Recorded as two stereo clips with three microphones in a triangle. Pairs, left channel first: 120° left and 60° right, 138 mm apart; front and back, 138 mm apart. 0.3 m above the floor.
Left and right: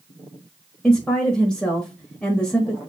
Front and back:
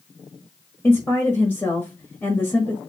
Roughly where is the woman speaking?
Ahead left.